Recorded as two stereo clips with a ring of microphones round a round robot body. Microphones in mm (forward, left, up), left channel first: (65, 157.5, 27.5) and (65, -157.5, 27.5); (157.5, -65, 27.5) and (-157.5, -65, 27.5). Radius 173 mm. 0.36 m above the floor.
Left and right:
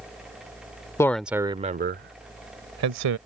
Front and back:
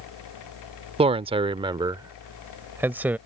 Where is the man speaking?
150° left; by 3.2 s 95° right.